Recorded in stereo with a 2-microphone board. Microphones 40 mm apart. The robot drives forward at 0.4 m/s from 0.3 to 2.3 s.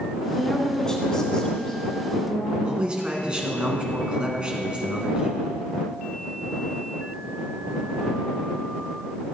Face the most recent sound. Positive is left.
turn(degrees=-25)  # may be behind; listen again after turning